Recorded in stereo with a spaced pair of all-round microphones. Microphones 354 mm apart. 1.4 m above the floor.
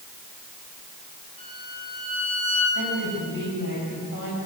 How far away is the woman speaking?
About 9.5 m.